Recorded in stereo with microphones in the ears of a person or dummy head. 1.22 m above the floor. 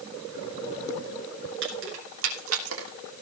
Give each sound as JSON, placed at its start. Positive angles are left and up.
{"t": 1.6, "sound": "keys jangling", "side_deg": -60, "distance_m": 3.0}